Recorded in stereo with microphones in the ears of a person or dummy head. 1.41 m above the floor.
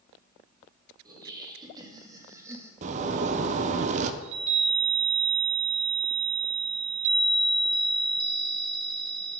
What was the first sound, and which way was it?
Laughter, 20° right (ahead or behind).